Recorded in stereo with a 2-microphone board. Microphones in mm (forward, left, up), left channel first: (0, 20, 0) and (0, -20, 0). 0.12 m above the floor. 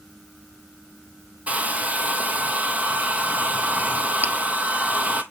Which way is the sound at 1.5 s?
40° right (ahead or behind).